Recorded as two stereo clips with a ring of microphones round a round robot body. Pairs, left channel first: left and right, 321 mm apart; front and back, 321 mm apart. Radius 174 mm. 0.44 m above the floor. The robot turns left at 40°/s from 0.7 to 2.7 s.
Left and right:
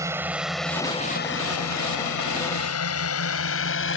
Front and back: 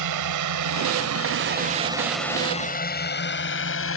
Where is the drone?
170° right; by 4.0 s 45° left.